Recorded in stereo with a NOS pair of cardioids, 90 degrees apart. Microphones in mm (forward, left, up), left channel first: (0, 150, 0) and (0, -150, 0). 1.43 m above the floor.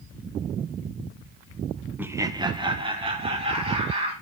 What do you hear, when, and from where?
2.0 s laughter: 5° right, 0.7 m; by 4.1 s 20° right, 4 m